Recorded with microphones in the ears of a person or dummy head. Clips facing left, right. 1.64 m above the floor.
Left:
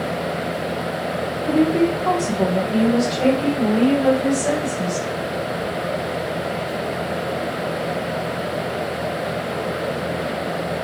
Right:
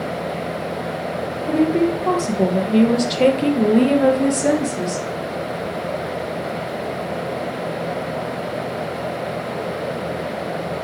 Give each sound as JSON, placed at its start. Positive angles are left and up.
{"t": 1.5, "sound": "a woman speaking", "side_deg": 0, "distance_m": 1.4}